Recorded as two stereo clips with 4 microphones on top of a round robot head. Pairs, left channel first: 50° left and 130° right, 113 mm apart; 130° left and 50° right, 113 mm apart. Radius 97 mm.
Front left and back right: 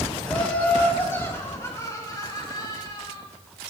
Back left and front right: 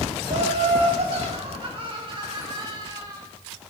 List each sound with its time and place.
0.3 s laughter: 30° right, 4.5 m; by 3.2 s 5° left, 5.5 m